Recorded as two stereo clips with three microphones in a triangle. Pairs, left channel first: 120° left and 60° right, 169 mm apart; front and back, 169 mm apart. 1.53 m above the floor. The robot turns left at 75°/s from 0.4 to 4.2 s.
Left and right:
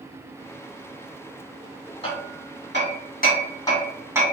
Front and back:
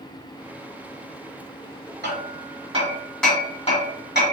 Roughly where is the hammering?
Behind.